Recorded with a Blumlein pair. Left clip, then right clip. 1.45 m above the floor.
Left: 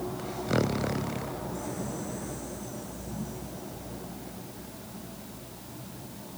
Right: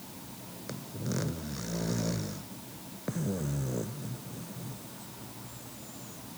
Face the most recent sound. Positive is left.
No sound to turn to.